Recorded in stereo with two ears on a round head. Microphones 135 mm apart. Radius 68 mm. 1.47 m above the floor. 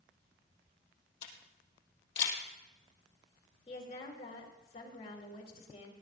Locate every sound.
1.2 s a camera shutter: 70° left (ahead or behind), 3.5 m
3.7 s a woman speaking: 40° left (ahead or behind), 3 m